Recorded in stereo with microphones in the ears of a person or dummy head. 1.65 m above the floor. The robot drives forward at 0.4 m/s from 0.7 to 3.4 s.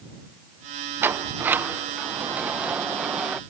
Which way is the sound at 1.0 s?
15° right (ahead or behind).